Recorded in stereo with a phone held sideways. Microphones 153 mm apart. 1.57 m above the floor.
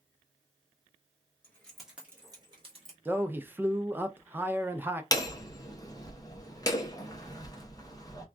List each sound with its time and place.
1.4 s keys jangling: 15° left (ahead or behind), 1.3 m; by 3.0 s 45° right (ahead or behind), 1.4 m
3.0 s a man speaking: 15° right (ahead or behind), 0.5 m
5.1 s hammering: 25° left (ahead or behind), 0.6 m